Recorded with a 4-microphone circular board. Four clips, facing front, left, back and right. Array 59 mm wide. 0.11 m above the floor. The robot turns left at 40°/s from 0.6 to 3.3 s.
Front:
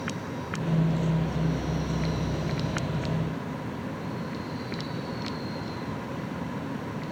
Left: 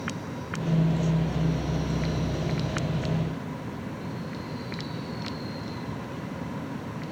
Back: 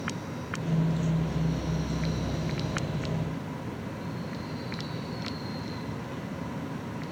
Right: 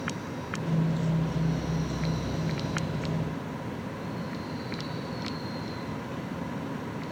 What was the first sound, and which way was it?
Only background noise.